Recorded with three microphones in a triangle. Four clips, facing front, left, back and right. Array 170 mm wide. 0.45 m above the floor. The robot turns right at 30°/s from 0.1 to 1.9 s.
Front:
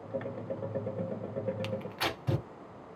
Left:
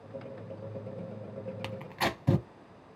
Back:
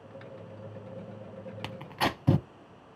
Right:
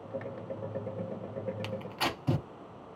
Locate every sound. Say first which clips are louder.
1.6 s tearing paper: left 5 dB, back 3 dB; 150° left, 0.6 m; by 2.5 s 160° left, 0.6 m